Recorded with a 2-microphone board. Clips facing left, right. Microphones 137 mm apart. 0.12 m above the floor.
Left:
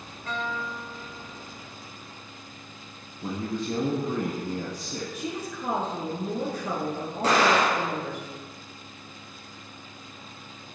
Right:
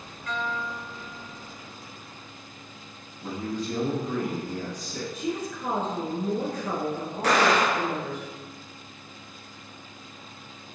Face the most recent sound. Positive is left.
turn(degrees=30)  # may be behind; listen again after turning